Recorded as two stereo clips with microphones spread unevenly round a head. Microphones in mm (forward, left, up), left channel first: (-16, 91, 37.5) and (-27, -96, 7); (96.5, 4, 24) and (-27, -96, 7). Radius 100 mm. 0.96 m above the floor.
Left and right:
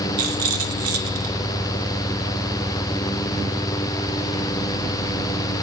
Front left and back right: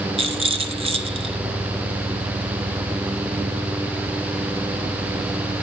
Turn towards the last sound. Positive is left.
turn(degrees=-85)